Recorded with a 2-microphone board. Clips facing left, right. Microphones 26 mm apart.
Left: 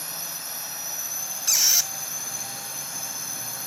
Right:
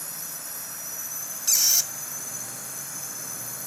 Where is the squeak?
20° left (ahead or behind).